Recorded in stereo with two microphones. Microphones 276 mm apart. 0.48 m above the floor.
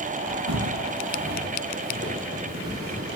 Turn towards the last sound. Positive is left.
turn(degrees=-10)  # may be behind; listen again after turning